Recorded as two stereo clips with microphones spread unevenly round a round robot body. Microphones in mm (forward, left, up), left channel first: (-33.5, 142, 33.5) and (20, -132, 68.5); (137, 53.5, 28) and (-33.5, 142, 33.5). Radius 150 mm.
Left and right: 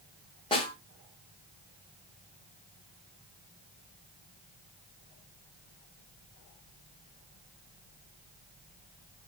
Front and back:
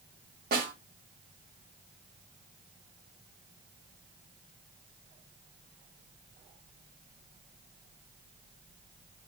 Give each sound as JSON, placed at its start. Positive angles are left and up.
{"t": 0.5, "sound": "a snare drum", "azimuth_deg": 160, "distance_m": 1.1}